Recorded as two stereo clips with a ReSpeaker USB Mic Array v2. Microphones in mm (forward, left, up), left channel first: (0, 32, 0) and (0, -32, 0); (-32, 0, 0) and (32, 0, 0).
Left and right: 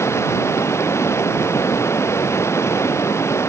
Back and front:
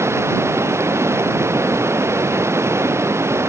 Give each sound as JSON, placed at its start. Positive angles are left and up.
{"t": 0.0, "sound": "running water", "azimuth_deg": 45}